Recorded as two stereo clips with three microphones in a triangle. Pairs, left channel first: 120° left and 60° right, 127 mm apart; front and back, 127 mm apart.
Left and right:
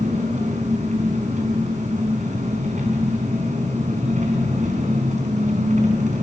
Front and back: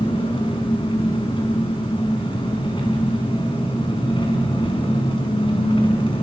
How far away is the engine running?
About 5 m.